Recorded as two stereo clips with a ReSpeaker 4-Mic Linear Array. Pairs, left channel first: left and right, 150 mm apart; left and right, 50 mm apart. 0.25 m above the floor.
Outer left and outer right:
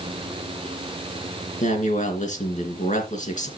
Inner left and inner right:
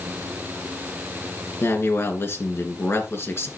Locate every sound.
1.6 s a man speaking: 55° left (ahead or behind), 3 m